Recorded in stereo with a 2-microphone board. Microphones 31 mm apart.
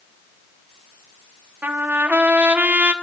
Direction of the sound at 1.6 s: 55° right (ahead or behind).